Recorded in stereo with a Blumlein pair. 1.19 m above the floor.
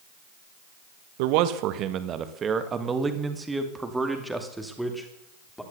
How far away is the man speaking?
About 1.3 m.